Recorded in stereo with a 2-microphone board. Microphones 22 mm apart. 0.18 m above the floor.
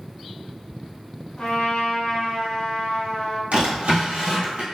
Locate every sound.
1.4 s a trumpet: 40° left (ahead or behind), 1.8 m
3.5 s a drawer: 75° right (ahead or behind), 1.5 m